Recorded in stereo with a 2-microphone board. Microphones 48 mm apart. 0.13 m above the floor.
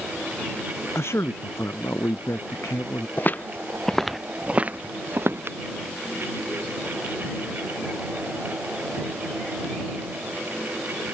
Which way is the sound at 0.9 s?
70° left (ahead or behind).